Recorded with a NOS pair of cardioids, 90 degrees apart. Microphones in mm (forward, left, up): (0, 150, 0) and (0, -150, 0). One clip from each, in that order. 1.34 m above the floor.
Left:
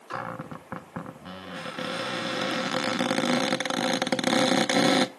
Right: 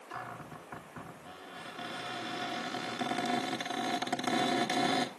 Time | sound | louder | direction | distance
0.1 | a cupboard door | left 8 dB | 70° left | 1.0 m